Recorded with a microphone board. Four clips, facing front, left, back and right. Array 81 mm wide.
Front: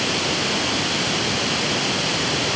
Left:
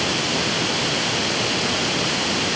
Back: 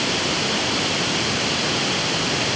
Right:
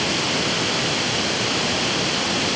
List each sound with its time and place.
Only background noise.